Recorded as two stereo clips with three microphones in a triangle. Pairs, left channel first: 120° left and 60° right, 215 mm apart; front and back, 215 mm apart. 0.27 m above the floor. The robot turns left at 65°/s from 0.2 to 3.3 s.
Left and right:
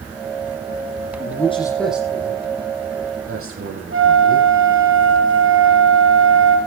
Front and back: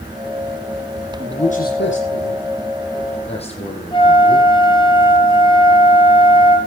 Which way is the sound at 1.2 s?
75° left.